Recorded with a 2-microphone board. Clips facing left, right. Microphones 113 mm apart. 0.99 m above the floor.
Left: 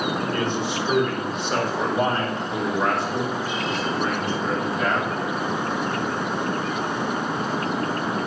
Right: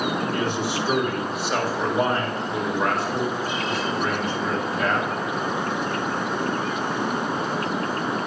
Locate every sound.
0.3 s a man speaking: 15° right (ahead or behind), 3 m; by 5.1 s 5° left (ahead or behind), 6.5 m